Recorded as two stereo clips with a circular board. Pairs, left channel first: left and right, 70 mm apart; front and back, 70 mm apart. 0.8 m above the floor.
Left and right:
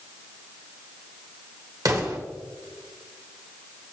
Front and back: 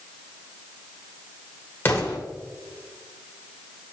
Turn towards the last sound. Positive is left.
turn(degrees=-60)